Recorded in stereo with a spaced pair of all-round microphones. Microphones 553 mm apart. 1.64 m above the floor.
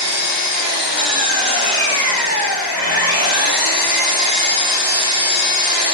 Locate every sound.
0.0 s an engine running: 40° left (ahead or behind), 0.8 m